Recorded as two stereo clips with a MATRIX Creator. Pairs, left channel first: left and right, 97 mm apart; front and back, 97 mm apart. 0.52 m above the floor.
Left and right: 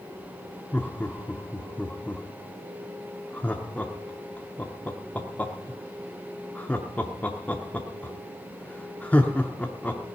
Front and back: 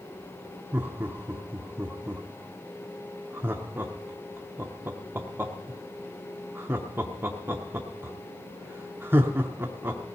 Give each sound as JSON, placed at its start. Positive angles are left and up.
{"t": 0.7, "sound": "laughter", "azimuth_deg": 145, "distance_m": 0.8}